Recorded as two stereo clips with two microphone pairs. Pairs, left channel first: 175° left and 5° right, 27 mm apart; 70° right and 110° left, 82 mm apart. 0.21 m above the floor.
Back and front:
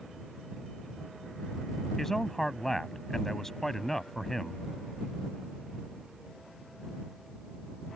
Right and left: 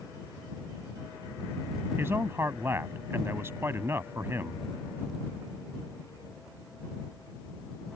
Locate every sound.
2.0 s a man speaking: 110° left